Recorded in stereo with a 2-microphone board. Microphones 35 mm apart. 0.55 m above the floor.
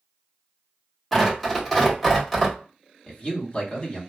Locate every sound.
1.1 s tearing paper: 5° left (ahead or behind), 1.5 m
3.1 s a man speaking: 30° left (ahead or behind), 1.4 m